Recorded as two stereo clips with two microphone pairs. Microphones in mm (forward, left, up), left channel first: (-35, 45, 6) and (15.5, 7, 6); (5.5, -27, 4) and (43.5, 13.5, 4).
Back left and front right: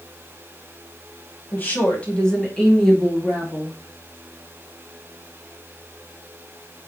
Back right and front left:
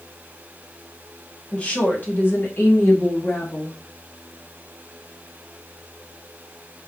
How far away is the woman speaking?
About 1.4 m.